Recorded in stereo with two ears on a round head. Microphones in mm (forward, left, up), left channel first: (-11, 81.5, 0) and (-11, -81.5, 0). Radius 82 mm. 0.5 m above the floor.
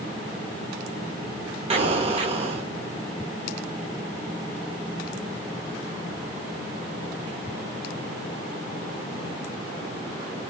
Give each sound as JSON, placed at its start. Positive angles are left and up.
{"t": 1.7, "sound": "an explosion", "side_deg": -30, "distance_m": 0.6}